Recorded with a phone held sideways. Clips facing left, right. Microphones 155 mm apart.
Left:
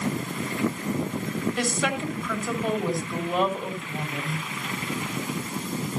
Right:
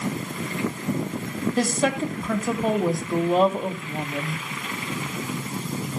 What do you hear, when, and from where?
1.6 s a woman speaking: 35° right (ahead or behind), 2.5 m